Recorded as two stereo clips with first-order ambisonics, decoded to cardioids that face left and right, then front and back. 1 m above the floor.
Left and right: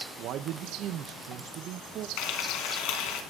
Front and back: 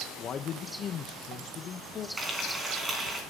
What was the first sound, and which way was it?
A man speaking, 55° right.